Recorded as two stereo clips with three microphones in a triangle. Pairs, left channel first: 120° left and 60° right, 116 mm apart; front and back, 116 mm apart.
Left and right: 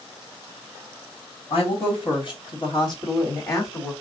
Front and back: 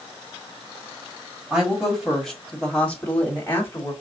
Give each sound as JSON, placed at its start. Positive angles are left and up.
{"t": 1.5, "sound": "a woman speaking", "azimuth_deg": 100, "distance_m": 2.5}